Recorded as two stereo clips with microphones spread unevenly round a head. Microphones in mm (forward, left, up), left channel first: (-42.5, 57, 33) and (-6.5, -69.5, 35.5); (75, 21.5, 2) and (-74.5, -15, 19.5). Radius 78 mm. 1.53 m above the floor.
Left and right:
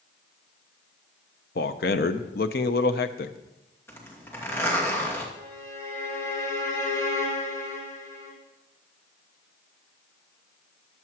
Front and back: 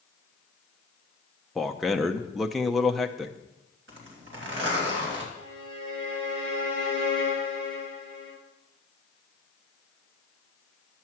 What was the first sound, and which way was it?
A man speaking, 105° left.